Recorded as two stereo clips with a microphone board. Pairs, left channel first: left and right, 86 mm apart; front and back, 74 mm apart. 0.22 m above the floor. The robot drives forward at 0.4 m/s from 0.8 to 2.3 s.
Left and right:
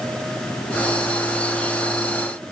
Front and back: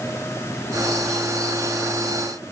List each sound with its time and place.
Only background noise.